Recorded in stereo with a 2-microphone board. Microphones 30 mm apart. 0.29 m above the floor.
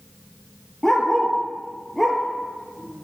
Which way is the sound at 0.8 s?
15° left (ahead or behind).